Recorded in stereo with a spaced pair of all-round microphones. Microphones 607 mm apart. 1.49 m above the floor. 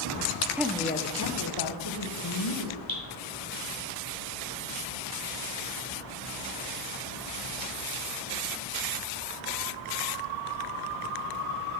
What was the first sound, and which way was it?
A woman speaking, 5° right (ahead or behind).